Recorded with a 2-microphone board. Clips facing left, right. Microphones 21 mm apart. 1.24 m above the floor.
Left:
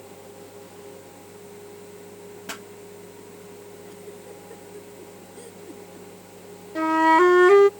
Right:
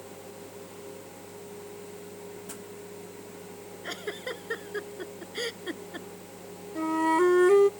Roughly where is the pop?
Left.